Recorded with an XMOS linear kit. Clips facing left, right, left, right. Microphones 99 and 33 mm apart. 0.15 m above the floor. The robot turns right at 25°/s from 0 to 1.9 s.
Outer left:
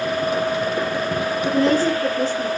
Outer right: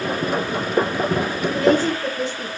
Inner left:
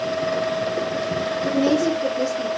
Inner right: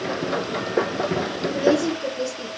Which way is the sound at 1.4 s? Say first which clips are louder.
Even, even; 35° left (ahead or behind).